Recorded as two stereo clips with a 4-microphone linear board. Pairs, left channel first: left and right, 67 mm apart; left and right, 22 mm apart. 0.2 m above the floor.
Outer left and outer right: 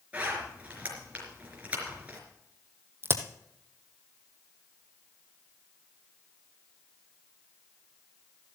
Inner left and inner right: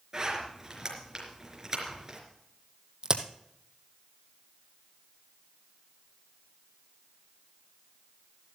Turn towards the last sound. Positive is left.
turn(degrees=-35)  # may be behind; listen again after turning